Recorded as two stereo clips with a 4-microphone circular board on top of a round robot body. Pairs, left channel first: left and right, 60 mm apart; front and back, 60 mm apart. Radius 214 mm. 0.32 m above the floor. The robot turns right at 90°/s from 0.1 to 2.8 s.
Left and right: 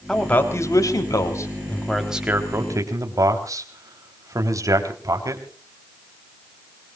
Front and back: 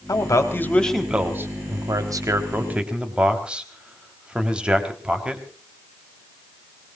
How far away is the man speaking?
About 3.5 m.